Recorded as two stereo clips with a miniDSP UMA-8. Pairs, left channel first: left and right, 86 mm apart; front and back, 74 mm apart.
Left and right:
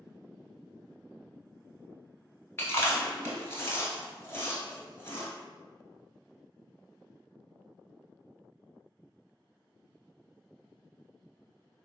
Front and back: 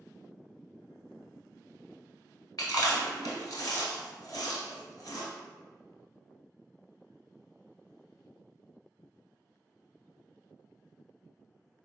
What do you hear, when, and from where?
2.6 s chewing: 35° left, 0.9 m